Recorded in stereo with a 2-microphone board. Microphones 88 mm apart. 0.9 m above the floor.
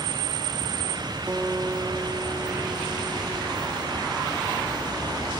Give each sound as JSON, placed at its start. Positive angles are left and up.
{"t": 1.3, "sound": "a guitar", "side_deg": -25, "distance_m": 1.7}